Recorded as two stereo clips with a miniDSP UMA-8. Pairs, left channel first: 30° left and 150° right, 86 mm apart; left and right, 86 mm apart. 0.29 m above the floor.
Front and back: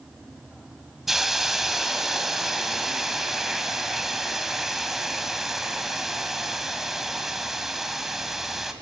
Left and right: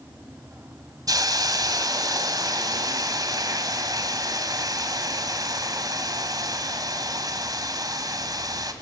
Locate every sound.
1.1 s a hiss: 65° right, 1.5 m